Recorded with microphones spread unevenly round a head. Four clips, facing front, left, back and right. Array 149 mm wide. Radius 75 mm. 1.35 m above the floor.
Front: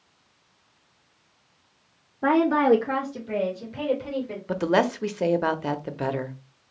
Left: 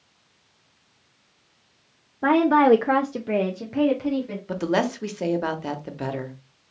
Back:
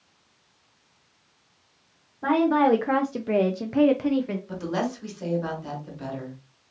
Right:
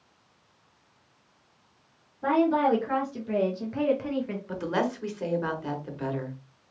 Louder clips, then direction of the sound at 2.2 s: Left 6 dB, even; 75° left.